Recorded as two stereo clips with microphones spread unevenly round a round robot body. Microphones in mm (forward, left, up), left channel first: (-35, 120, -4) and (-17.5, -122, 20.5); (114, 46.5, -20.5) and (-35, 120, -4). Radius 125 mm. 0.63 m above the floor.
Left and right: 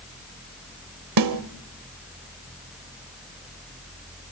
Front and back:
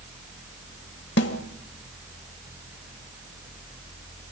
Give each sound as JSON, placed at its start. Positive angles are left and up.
{"t": 1.2, "sound": "a snare drum", "azimuth_deg": -75, "distance_m": 1.1}